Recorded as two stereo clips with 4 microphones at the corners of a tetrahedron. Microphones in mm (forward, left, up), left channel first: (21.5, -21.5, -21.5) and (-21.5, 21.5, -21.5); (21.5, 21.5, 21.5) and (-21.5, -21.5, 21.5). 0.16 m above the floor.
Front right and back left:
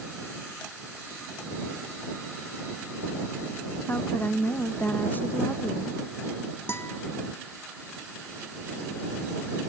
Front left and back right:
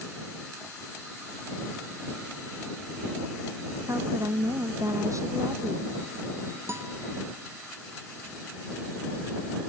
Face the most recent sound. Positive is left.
turn(degrees=-90)